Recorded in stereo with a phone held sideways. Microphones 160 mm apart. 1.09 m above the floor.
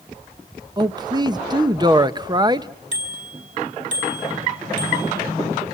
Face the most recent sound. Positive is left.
turn(degrees=-55)  # may be behind; listen again after turning